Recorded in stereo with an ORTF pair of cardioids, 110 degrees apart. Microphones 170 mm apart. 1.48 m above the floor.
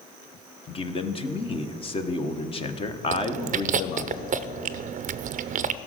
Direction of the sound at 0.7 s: 30° left.